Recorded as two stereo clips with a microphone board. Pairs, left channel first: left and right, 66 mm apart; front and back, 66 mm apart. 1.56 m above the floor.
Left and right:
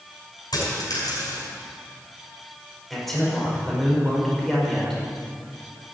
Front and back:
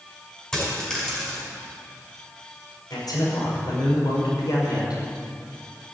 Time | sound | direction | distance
0.5 | a dropped coin | 80° left | 5.5 m
2.9 | a man speaking | 5° left | 5.5 m